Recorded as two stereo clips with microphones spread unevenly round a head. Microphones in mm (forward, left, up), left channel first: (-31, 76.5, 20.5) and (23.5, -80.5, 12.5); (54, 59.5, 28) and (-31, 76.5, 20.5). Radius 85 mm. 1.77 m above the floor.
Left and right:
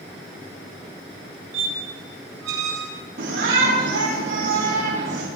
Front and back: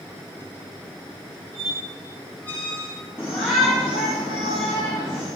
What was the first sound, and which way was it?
A squeak, 85° right.